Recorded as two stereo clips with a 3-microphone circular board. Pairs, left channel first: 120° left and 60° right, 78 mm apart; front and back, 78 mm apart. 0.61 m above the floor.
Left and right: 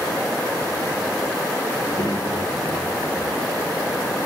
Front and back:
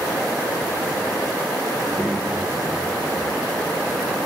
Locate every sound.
1.7 s a child speaking: 95° left, 6.5 m; by 4.2 s 85° left, 7.5 m